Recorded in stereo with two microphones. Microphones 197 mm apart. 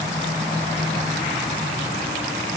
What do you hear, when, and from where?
Only background noise.